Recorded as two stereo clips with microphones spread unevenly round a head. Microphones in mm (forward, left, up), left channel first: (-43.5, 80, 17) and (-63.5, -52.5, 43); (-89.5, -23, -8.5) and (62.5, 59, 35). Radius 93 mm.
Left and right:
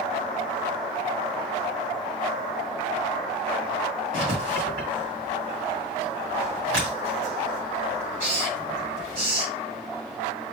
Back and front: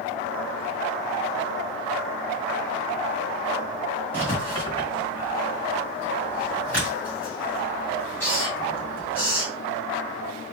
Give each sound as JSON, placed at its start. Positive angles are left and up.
{"t": 4.1, "sound": "writing", "azimuth_deg": -65, "distance_m": 2.0}